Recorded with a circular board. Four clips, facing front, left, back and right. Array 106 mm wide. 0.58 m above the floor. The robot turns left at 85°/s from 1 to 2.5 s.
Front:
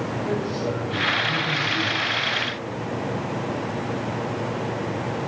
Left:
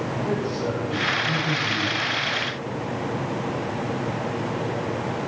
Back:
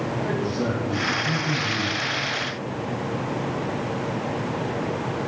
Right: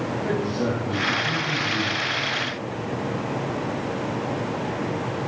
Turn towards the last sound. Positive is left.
turn(degrees=95)